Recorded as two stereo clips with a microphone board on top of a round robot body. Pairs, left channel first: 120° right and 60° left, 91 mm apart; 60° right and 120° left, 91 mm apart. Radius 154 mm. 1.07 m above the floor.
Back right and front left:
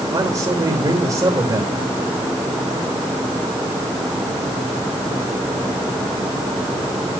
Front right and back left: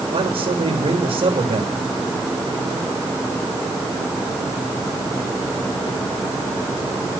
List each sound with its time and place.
0.1 s a man speaking: 110° left, 3.5 m